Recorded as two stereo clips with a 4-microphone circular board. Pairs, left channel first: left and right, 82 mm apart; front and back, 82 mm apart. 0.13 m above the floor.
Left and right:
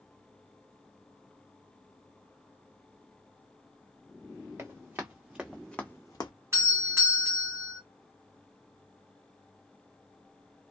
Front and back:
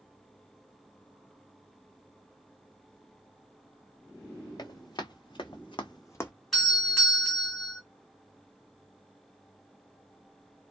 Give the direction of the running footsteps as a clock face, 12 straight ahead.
1 o'clock.